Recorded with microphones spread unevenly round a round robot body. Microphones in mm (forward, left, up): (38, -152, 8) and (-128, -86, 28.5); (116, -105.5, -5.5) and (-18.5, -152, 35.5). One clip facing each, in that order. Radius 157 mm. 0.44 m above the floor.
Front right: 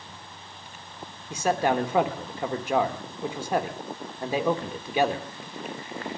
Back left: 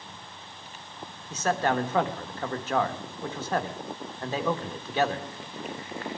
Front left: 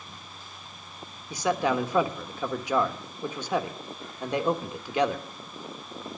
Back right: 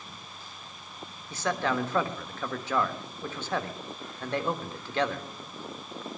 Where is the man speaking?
30° left, 1.1 m.